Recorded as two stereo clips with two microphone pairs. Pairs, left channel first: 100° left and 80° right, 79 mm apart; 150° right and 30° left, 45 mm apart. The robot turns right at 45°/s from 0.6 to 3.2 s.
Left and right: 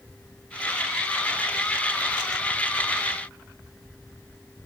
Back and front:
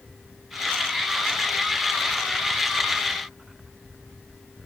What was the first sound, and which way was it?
Only background noise.